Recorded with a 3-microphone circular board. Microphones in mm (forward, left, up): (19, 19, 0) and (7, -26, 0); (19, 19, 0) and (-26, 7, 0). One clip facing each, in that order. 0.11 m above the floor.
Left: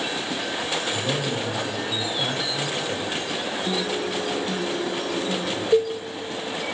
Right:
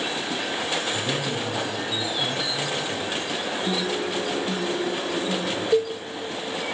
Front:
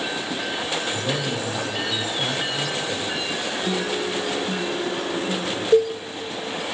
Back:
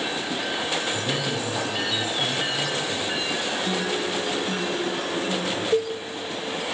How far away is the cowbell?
About 0.6 m.